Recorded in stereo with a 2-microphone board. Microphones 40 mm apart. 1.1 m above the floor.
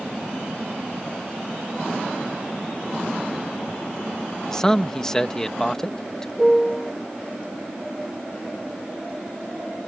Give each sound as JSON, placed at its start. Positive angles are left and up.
{"t": 4.5, "sound": "a man speaking", "side_deg": 15}
{"t": 6.4, "sound": "a piano", "side_deg": 10}